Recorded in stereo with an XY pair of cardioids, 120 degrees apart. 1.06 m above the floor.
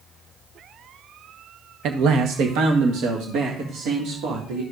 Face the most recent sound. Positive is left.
turn(degrees=-80)